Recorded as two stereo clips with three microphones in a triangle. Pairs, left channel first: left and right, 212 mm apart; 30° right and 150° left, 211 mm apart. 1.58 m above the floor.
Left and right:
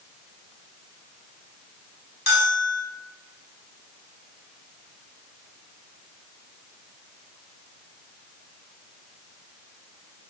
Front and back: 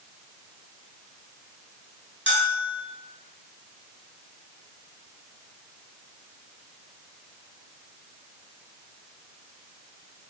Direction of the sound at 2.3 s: 125° left.